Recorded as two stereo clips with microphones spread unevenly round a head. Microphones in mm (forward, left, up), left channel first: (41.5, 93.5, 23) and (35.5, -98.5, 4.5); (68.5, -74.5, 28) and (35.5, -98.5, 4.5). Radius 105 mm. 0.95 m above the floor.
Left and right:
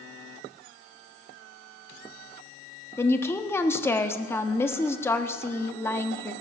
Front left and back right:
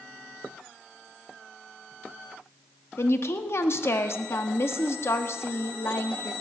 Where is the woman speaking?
10° left, 1.4 m.